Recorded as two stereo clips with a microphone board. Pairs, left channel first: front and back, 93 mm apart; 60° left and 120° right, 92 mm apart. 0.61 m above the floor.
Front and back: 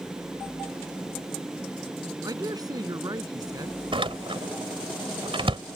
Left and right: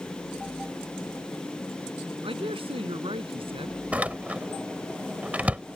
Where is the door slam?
165° left.